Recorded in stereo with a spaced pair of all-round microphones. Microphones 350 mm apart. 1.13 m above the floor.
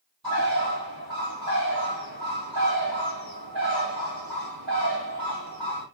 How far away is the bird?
About 5.5 m.